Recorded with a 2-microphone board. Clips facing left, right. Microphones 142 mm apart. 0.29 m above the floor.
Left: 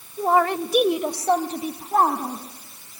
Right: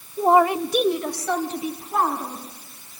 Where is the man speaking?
25° right (ahead or behind), 1.1 m; by 2.4 s 45° left (ahead or behind), 2.5 m.